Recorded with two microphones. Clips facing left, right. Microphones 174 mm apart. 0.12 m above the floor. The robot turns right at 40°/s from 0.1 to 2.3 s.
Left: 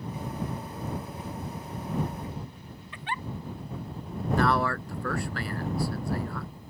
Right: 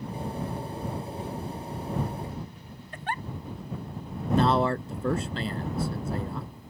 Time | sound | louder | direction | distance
2.9 | a giggle | right 2 dB | 40° right (ahead or behind) | ?
4.4 | a man speaking | right 3 dB | 20° right (ahead or behind) | ?